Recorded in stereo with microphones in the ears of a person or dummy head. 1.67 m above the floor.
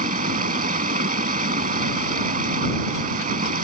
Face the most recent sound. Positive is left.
turn(degrees=-45)  # may be behind; listen again after turning